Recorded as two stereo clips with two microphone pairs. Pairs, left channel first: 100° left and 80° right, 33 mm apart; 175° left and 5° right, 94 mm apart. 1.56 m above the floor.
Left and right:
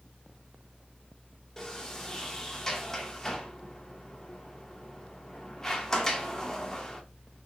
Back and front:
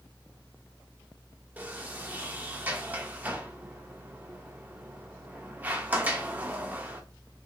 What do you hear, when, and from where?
1.6 s a sliding door: 45° left, 1.2 m